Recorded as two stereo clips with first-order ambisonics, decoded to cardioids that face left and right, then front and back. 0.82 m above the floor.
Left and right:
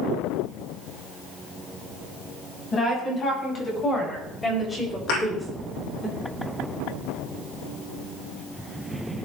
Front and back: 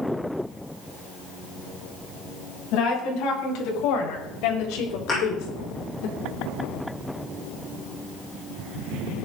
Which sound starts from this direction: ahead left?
A woman speaking, at 2.7 s.